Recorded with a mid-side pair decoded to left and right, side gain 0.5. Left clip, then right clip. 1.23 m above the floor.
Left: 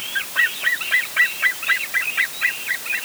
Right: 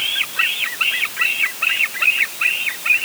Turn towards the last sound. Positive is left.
No sound to turn to.